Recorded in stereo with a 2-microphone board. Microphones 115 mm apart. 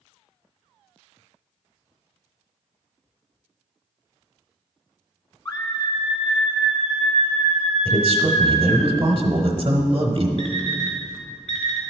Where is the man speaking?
40° right (ahead or behind), 1.1 m.